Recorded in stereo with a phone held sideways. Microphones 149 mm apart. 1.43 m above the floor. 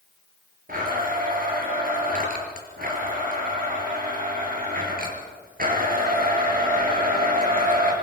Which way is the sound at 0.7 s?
70° right (ahead or behind).